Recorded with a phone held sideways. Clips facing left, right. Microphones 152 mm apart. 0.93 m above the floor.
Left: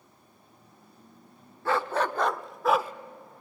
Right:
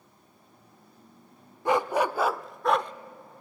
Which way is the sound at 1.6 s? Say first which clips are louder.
Right 3 dB; 15° right (ahead or behind).